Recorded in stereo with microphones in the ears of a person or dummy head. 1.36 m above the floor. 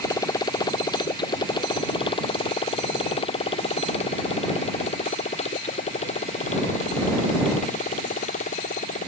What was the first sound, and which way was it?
A motorcycle, 20° left (ahead or behind).